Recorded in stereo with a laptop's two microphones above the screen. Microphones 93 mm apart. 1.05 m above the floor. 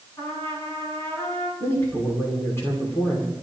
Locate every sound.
0.2 s a trumpet: 25° left (ahead or behind), 5.5 m
1.6 s a man speaking: 30° left (ahead or behind), 2.5 m